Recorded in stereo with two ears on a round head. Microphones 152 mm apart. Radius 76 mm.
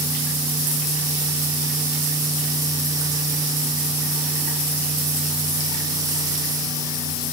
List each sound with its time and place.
Only background noise.